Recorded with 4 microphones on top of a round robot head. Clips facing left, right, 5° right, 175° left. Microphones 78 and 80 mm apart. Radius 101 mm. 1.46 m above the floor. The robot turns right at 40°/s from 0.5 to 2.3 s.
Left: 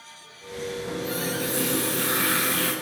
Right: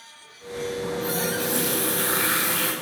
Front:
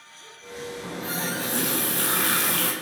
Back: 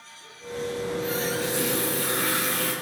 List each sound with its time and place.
0.8 s a running tap: 80° right, 8 m; by 2.7 s 25° right, 8 m